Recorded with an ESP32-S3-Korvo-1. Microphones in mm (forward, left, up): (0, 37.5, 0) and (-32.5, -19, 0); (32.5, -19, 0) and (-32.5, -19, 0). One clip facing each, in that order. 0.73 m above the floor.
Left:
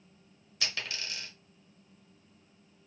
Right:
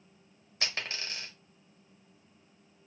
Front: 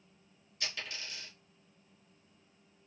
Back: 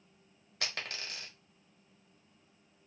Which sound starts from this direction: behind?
A dropped coin, at 0.6 s.